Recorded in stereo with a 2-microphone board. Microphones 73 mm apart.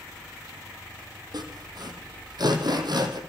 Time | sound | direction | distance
1.3 | sawing | 65° right (ahead or behind) | 4 m